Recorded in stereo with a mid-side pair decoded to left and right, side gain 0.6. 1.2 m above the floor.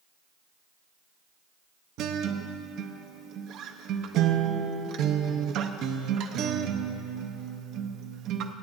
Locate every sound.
2.0 s a guitar: 60° right, 0.7 m